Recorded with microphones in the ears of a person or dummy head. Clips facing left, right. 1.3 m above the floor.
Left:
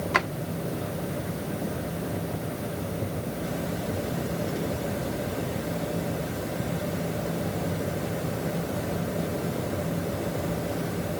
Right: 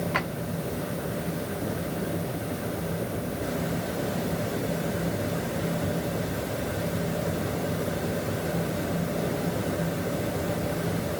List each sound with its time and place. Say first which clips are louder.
0.1 s a drawer: left 2 dB; 70° left (ahead or behind), 1.7 m